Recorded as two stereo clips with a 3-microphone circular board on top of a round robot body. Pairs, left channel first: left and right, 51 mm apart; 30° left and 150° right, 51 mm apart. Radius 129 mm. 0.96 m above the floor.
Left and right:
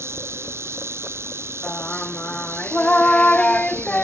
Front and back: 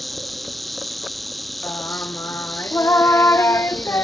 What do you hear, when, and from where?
0.0 s an insect: 60° right
1.6 s singing: 25° left